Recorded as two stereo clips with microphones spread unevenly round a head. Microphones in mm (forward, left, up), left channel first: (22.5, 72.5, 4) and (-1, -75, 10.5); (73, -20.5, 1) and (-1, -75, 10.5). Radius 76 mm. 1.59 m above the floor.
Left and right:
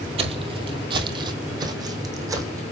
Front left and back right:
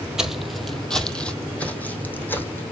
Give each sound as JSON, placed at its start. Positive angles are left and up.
{"t": 0.2, "sound": "footsteps", "azimuth_deg": -70, "distance_m": 2.0}